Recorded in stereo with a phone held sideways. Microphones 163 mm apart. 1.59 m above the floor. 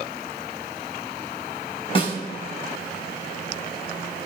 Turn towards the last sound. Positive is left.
turn(degrees=30)  # may be behind; listen again after turning